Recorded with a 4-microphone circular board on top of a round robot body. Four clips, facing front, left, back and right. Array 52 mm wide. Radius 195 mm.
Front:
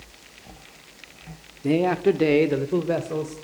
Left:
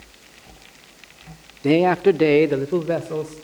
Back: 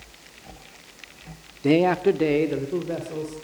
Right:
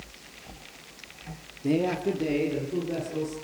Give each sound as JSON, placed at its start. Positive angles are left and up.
{"t": 1.6, "sound": "a man speaking", "azimuth_deg": 120, "distance_m": 1.0}